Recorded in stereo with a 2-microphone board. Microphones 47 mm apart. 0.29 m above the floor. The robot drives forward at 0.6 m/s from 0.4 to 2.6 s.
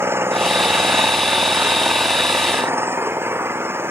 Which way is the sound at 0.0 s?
60° right (ahead or behind).